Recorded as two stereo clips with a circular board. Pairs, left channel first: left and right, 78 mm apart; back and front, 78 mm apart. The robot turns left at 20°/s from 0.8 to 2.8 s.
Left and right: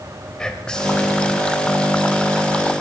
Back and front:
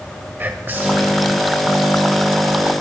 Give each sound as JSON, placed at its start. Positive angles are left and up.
{"t": 0.4, "sound": "whispering", "azimuth_deg": 25, "distance_m": 1.1}